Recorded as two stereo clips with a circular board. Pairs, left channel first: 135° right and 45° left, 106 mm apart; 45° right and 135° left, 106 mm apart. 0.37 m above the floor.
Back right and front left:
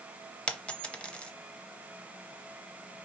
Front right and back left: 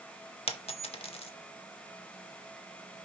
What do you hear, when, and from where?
0.5 s a dropped coin: 55° right, 0.7 m